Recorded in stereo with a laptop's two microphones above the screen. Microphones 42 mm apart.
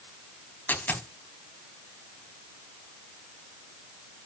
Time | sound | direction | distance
0.7 | a dropped coin | 50° left (ahead or behind) | 3.5 m